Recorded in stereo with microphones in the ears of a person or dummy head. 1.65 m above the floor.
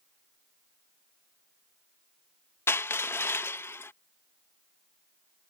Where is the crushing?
10° left (ahead or behind).